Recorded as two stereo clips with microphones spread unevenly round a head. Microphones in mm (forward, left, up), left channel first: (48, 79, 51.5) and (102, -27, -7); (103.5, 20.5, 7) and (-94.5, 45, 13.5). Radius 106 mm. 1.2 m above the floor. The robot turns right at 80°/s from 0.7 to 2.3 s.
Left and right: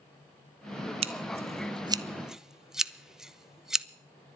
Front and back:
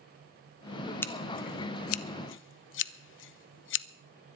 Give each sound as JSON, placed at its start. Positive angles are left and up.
{"t": 1.0, "sound": "scissors", "azimuth_deg": -85, "distance_m": 0.6}